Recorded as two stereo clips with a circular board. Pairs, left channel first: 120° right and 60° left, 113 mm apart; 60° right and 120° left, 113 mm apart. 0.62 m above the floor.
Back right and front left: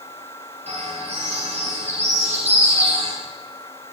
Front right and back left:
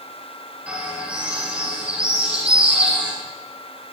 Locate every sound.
0.7 s a bird: 40° left, 10 m